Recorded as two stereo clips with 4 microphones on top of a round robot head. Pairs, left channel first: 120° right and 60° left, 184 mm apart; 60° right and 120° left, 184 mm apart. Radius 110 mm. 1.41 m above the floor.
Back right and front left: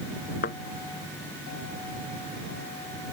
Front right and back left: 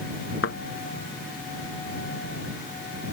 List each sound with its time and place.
0.4 s a thud: 85° right